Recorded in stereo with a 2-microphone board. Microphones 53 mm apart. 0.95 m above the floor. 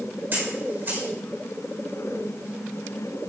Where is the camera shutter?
35° right (ahead or behind), 4.5 m.